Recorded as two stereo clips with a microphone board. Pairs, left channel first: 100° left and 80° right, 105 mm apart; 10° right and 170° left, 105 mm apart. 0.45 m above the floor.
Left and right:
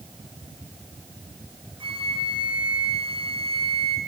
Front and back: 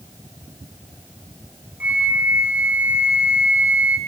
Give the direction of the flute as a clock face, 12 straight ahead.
4 o'clock.